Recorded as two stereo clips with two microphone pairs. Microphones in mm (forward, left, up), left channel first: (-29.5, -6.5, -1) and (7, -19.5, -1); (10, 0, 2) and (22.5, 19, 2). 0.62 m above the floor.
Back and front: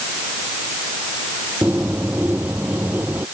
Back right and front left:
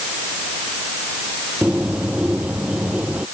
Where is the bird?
20° left.